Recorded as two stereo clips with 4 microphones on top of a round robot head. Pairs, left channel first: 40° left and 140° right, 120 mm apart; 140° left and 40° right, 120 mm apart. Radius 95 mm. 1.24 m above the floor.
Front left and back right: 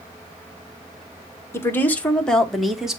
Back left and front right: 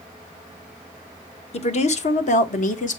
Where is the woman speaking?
110° left, 1.5 m; by 3.0 s 135° left, 2.0 m.